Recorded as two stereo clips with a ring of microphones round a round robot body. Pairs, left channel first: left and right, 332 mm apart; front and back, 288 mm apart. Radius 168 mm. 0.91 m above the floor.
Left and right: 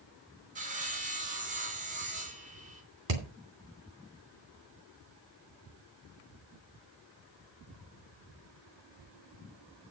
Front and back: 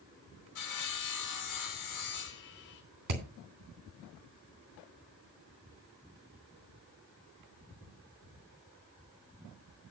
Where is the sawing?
20° right, 2 m.